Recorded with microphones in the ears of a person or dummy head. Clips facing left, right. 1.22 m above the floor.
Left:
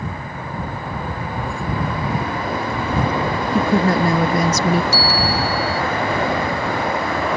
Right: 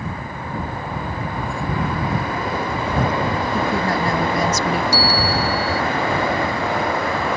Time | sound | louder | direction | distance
3.5 | a woman speaking | left 7 dB | 70° left (ahead or behind) | ?
4.9 | a bell | even | 10° right (ahead or behind) | ?